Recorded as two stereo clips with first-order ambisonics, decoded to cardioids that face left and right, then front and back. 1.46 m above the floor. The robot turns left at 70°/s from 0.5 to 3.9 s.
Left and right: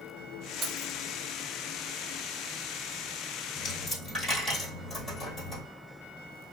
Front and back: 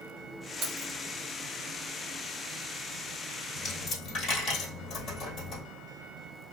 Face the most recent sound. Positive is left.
turn(degrees=25)